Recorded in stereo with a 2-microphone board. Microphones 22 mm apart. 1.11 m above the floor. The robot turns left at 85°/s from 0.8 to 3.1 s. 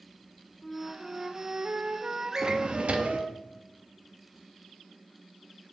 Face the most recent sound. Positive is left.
turn(degrees=-85)